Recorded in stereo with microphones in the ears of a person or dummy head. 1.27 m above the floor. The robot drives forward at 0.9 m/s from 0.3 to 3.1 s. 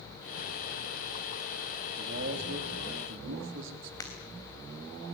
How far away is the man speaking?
About 3.5 m.